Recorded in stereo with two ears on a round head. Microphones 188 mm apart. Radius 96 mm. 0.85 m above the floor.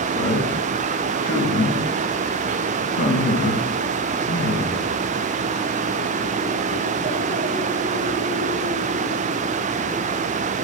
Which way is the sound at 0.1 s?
45° left (ahead or behind).